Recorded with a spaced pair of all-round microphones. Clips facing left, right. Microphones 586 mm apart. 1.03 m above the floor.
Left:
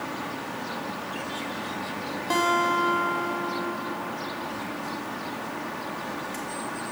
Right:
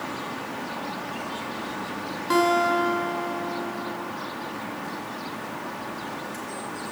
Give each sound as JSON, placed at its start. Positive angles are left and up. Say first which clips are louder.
{"t": 2.3, "sound": "a guitar", "louder": "right 5 dB", "side_deg": 15, "distance_m": 3.0}